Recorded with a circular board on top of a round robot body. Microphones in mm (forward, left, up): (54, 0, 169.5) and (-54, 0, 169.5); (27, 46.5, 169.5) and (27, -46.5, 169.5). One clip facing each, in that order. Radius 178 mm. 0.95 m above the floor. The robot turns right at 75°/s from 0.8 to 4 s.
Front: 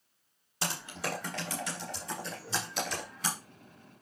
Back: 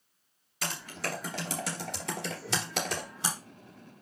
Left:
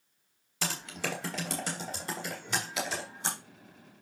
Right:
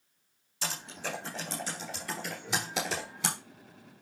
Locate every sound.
0.6 s typing on a keyboard: 60° left, 1.4 m; by 3.4 s 110° right, 1.4 m